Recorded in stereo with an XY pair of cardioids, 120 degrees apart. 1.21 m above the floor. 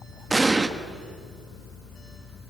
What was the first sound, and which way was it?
An explosion, 10° right.